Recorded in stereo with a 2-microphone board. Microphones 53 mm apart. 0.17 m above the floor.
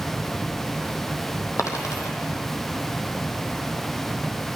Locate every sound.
1.6 s a dropped coin: 80° left, 1.8 m